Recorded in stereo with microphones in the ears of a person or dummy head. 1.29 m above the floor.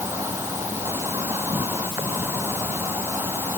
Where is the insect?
15° right (ahead or behind).